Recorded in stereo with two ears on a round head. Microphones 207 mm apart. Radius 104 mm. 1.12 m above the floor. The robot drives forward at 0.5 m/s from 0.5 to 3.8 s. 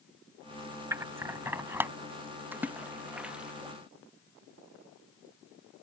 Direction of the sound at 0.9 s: 10° right (ahead or behind).